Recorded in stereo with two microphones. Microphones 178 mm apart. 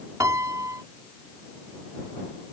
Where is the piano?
15° right (ahead or behind).